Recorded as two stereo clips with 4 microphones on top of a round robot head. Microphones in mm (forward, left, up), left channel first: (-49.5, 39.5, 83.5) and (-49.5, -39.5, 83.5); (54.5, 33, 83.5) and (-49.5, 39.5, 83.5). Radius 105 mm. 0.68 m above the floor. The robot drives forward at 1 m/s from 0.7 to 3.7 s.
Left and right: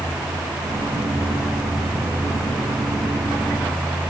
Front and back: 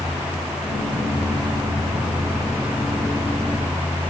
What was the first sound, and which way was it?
Only background noise.